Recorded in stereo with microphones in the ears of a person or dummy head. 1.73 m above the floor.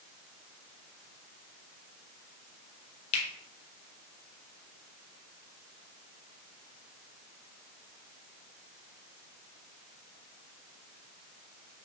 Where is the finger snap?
40° left (ahead or behind), 0.8 m.